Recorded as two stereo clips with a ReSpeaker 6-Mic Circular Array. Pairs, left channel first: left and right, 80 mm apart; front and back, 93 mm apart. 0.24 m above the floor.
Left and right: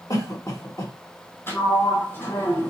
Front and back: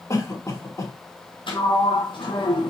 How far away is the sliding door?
About 1.4 m.